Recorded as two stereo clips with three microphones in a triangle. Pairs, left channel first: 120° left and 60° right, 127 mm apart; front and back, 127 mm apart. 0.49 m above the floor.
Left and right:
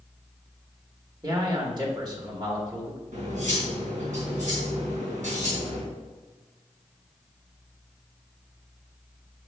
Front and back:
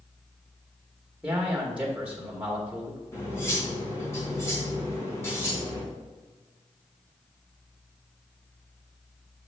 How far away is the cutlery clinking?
About 3 m.